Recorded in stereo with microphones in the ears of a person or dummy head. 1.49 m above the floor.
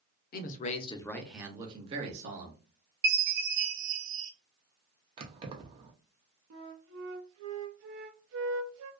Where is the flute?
70° right (ahead or behind), 0.5 m.